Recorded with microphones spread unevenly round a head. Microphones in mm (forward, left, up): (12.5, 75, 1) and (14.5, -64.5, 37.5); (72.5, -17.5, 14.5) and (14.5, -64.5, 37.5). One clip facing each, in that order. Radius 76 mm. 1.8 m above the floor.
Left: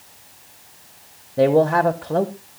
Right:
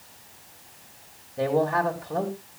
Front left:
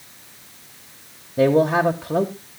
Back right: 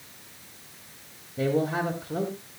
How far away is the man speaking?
About 1.3 m.